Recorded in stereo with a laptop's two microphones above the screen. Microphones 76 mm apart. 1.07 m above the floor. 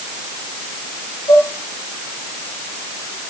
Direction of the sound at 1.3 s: 80° left.